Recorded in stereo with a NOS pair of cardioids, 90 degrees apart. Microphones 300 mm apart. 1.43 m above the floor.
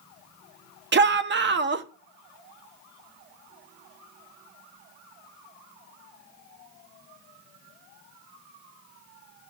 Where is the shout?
35° right, 1.0 m.